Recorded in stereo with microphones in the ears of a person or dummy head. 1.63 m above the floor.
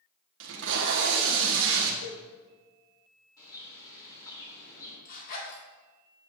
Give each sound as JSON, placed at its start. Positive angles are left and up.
{"t": 0.4, "sound": "tape being pulled", "side_deg": -75, "distance_m": 1.2}
{"t": 2.0, "sound": "a cowbell", "side_deg": 75, "distance_m": 2.5}
{"t": 3.4, "sound": "a bird", "side_deg": 20, "distance_m": 3.5}
{"t": 5.0, "sound": "a zipper", "side_deg": 50, "distance_m": 2.5}